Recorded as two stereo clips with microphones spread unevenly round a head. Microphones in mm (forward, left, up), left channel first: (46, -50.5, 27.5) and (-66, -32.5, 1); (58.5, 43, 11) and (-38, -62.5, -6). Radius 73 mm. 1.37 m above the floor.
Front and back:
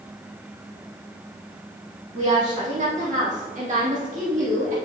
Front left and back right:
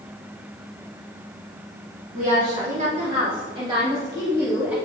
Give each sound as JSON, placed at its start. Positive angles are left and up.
{"t": 2.1, "sound": "a woman speaking", "azimuth_deg": -170, "distance_m": 4.0}